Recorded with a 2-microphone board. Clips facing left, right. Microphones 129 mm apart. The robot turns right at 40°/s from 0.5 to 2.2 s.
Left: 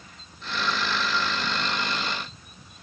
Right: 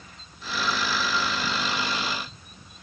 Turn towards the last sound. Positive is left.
No sound to turn to.